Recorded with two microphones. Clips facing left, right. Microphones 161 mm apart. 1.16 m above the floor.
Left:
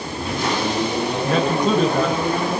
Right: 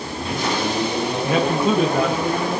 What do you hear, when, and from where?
1.2 s a man speaking: 5° right (ahead or behind), 1.2 m